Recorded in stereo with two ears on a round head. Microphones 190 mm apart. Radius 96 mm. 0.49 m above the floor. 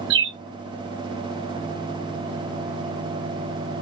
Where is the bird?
60° right (ahead or behind), 1.1 m.